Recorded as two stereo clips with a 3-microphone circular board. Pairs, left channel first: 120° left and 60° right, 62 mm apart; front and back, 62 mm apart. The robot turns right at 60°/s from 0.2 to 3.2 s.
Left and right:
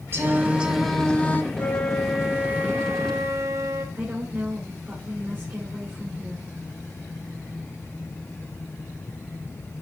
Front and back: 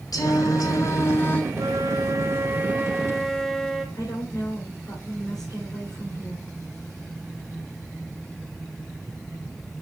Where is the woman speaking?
10° right, 3 m.